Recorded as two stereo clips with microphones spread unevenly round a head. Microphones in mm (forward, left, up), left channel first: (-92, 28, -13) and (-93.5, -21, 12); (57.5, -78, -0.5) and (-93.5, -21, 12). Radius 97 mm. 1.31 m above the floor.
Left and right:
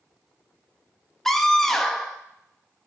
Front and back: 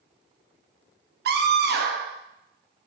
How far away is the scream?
About 0.9 m.